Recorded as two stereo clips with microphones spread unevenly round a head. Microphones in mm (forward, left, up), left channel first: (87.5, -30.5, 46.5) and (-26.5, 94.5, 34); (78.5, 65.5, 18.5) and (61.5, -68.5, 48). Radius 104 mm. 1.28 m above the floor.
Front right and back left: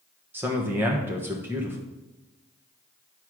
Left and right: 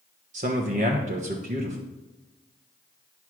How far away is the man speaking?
About 1.2 m.